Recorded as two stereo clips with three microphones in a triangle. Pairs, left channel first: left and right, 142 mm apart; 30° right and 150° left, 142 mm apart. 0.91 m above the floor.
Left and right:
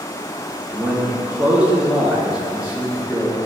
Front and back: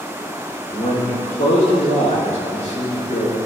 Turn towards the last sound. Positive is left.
turn(degrees=-10)